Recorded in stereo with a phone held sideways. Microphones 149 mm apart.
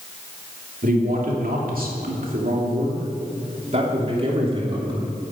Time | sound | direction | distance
0.8 | a man speaking | 75° right (ahead or behind) | 3 m